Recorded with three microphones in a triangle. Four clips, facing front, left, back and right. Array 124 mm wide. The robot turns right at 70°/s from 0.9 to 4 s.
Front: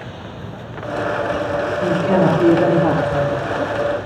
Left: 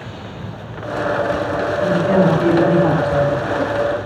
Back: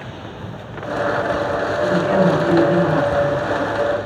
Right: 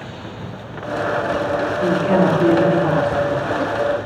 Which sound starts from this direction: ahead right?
A woman speaking, at 1.8 s.